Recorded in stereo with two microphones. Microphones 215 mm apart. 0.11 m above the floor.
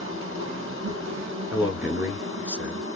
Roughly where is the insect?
Right.